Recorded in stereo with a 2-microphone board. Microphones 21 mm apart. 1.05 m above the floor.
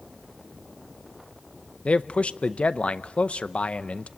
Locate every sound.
1.9 s a man speaking: 65° left (ahead or behind), 0.6 m